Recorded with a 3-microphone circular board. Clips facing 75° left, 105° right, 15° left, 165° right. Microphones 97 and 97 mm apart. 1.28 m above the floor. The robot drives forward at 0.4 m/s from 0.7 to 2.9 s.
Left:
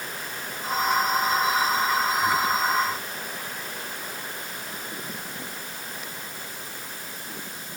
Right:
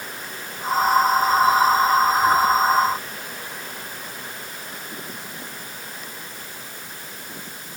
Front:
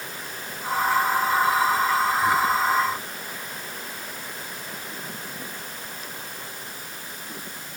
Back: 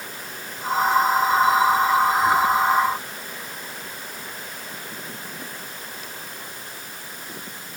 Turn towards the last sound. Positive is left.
No sound to turn to.